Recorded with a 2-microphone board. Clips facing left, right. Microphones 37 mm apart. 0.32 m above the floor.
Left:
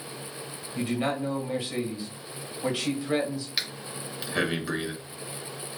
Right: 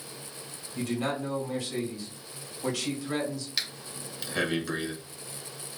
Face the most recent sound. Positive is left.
turn(degrees=15)  # may be behind; listen again after turning